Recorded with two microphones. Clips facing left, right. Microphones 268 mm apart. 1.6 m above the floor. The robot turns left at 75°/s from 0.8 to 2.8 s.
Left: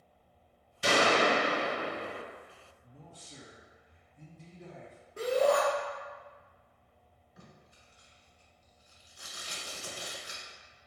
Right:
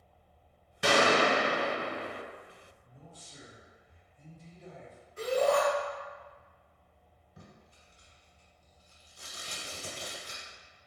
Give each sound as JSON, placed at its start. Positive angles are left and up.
{"t": 0.8, "sound": "a gunshot", "azimuth_deg": -100, "distance_m": 1.0}
{"t": 2.8, "sound": "a man speaking", "side_deg": 75, "distance_m": 0.8}
{"t": 5.2, "sound": "a shout", "side_deg": 75, "distance_m": 1.0}
{"t": 7.4, "sound": "tape being pulled", "side_deg": -35, "distance_m": 1.5}